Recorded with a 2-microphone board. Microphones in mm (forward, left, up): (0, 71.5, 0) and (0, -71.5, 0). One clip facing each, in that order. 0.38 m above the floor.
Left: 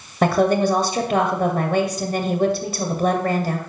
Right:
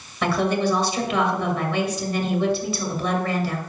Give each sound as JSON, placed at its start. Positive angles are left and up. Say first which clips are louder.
{"t": 0.2, "sound": "a woman speaking", "louder": "left 5 dB", "side_deg": 50, "distance_m": 1.8}